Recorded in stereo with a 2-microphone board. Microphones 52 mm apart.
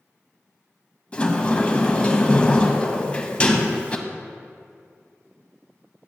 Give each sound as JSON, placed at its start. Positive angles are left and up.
{"t": 1.1, "sound": "a sliding door", "side_deg": 20, "distance_m": 0.6}